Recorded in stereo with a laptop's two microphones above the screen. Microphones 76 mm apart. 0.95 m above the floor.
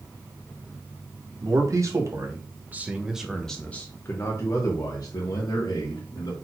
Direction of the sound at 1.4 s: 50° right (ahead or behind).